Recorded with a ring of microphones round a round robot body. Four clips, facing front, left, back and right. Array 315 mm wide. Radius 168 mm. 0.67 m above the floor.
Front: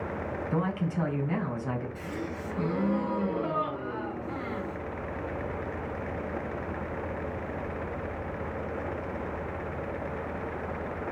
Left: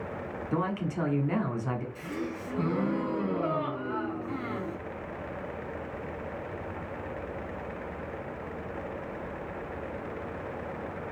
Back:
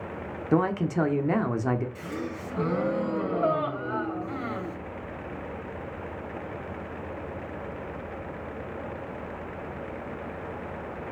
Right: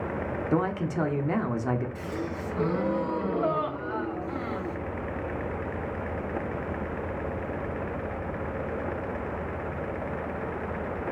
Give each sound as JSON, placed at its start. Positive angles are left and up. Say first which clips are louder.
{"t": 0.5, "sound": "a man speaking", "louder": "right 3 dB, back 7 dB", "azimuth_deg": -160, "distance_m": 1.5}
{"t": 1.9, "sound": "a gasp", "louder": "right 2 dB, back 1 dB", "azimuth_deg": -160, "distance_m": 3.5}